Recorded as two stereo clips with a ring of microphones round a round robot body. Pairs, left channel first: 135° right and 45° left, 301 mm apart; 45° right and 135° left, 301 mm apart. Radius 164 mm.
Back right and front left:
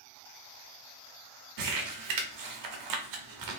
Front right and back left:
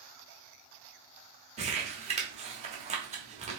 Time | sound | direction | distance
1.6 | crumpling | 65° left | 1.0 m